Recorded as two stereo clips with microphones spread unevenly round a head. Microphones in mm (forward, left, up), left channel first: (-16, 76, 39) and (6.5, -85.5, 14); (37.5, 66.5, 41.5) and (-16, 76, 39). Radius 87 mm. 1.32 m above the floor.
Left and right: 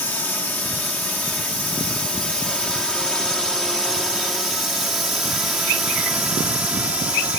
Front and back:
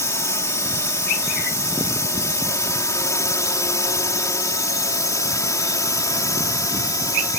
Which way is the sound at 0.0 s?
15° left.